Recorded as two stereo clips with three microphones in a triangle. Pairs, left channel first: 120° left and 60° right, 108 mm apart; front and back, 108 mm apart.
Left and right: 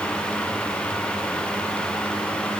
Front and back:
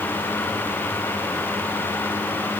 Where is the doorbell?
I don't hear a doorbell.